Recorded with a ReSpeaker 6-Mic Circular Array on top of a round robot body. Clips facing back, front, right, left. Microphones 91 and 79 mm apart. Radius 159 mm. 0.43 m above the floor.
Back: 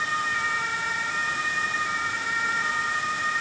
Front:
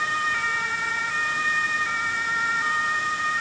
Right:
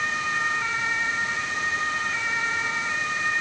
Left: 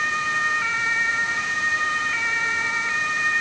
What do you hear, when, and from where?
Only background noise.